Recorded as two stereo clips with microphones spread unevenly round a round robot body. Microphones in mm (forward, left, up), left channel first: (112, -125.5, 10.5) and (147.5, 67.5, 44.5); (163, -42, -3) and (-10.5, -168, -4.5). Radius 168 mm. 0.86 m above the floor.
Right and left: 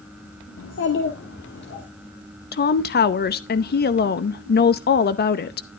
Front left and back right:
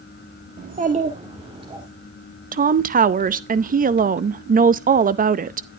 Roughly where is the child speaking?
Right.